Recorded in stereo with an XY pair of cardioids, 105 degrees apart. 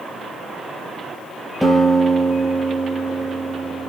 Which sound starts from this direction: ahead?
A guitar, at 1.6 s.